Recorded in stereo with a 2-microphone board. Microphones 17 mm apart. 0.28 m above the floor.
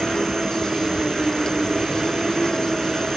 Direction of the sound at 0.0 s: 45° left (ahead or behind).